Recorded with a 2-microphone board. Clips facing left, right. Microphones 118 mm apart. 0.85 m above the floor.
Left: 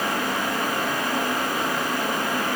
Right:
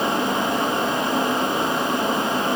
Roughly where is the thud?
No thud in this recording.